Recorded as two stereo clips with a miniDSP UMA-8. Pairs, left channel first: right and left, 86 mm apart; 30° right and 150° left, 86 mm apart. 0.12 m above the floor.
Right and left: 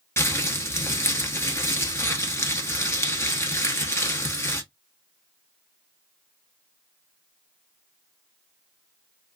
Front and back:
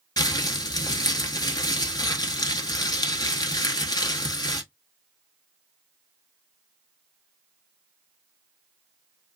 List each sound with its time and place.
0.2 s crumpling: 40° right, 0.9 m